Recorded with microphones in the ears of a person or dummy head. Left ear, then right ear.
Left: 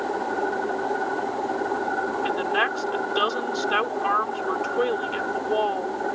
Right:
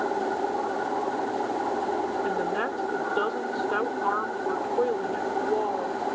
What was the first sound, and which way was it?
A woman speaking, 60° left (ahead or behind).